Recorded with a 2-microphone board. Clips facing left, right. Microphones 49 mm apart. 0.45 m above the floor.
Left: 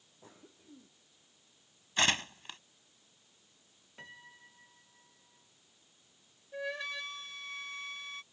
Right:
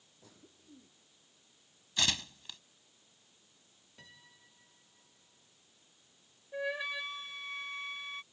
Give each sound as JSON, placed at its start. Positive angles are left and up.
{"t": 0.2, "sound": "a cough", "side_deg": 30}
{"t": 2.0, "sound": "tearing paper", "side_deg": 40}
{"t": 4.0, "sound": "a piano", "side_deg": 35}
{"t": 6.5, "sound": "a flute", "side_deg": -10}